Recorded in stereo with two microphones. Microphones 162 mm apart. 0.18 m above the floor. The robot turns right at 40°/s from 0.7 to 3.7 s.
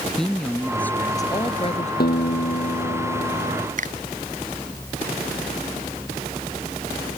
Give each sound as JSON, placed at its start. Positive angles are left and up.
{"t": 0.2, "sound": "a woman speaking", "azimuth_deg": 5}
{"t": 2.0, "sound": "a guitar", "azimuth_deg": 80}
{"t": 3.8, "sound": "a finger snap", "side_deg": -50}